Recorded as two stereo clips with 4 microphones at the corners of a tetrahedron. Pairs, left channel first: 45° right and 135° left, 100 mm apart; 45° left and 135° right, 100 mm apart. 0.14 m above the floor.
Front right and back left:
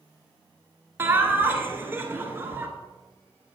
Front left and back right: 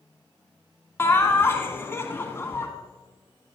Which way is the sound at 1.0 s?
90° left.